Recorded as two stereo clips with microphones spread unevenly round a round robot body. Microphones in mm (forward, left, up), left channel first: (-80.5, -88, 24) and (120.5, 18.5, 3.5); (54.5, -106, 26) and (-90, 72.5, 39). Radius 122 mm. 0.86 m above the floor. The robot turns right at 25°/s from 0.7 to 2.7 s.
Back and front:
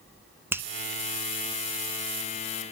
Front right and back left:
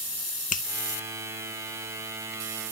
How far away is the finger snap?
About 0.9 m.